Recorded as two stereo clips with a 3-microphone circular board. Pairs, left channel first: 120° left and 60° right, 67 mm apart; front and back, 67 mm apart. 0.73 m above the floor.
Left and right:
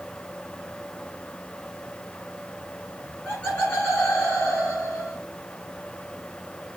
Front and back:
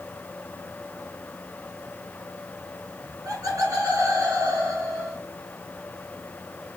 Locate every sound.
3.0 s laughter: 175° right, 4 m; by 5.2 s 165° right, 2.5 m